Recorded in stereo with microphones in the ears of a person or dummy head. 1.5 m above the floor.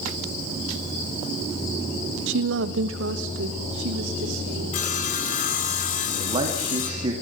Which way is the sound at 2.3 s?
75° right (ahead or behind).